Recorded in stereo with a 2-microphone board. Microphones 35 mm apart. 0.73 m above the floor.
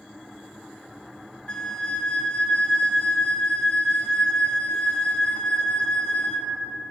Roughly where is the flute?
Left.